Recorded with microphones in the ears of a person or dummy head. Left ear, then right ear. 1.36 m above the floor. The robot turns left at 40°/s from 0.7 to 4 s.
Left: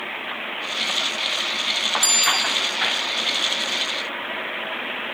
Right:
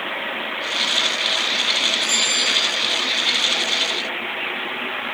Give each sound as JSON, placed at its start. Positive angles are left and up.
{"t": 2.0, "sound": "a bicycle bell", "side_deg": 50, "distance_m": 6.5}